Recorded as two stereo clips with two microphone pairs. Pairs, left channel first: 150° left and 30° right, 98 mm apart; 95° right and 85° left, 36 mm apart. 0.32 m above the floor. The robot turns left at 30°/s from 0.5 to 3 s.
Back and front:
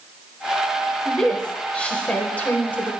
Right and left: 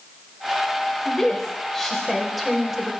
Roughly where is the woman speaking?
Behind right.